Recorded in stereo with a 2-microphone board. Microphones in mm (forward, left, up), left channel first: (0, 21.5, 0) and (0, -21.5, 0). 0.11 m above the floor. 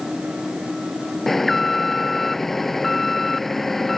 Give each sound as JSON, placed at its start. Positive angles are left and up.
{"t": 1.3, "sound": "an alarm", "side_deg": 5}